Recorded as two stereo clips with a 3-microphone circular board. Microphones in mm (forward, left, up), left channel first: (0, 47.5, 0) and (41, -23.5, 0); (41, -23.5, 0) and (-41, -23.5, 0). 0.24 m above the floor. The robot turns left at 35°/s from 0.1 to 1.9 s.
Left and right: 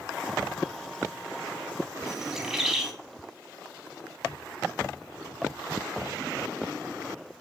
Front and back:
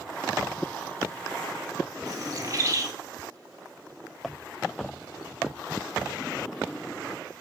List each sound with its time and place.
2.1 s a bird: 140° right, 0.6 m